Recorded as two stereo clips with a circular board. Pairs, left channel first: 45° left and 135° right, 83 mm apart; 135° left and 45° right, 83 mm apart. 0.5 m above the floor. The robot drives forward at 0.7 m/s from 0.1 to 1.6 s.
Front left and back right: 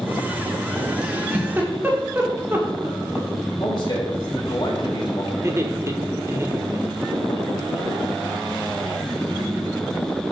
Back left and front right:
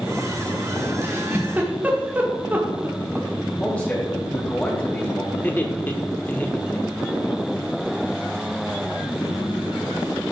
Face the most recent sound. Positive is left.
turn(degrees=-170)